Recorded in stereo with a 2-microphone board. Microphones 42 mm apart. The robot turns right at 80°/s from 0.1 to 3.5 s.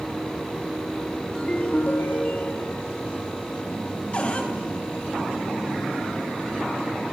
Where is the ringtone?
20° left, 1.1 m; by 2.8 s 140° left, 1.1 m.